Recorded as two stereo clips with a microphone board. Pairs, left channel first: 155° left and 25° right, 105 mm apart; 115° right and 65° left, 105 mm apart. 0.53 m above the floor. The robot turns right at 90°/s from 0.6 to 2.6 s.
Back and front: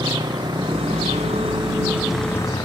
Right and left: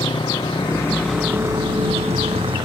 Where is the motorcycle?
70° right; by 2.7 s 110° left.